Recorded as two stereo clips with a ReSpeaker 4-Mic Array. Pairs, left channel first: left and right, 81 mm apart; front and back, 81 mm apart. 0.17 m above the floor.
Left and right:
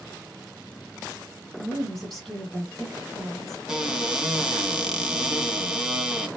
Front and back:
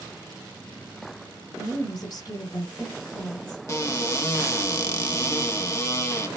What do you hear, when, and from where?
1.6 s a woman speaking: 10° left, 1.7 m
3.7 s a cupboard door: 10° right, 0.6 m